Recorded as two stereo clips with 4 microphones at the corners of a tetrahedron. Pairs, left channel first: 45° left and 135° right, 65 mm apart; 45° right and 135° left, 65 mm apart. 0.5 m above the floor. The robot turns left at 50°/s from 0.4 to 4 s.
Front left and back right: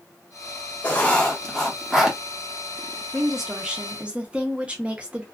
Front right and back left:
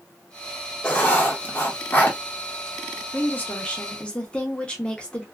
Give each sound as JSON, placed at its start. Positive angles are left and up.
{"t": 0.8, "sound": "writing", "azimuth_deg": 5, "distance_m": 0.9}
{"t": 3.1, "sound": "a woman speaking", "azimuth_deg": -45, "distance_m": 0.7}